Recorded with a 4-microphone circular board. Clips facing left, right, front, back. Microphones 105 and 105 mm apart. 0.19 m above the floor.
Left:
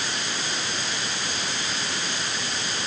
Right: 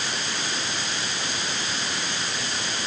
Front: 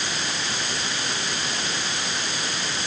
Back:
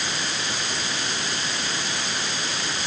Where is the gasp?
I don't hear a gasp.